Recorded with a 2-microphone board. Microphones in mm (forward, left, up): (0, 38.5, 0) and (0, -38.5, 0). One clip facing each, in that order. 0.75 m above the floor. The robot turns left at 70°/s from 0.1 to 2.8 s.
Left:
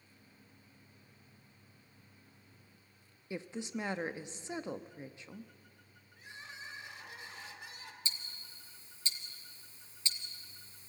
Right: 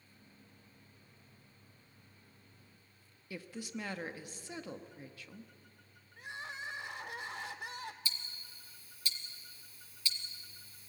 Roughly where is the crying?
Right.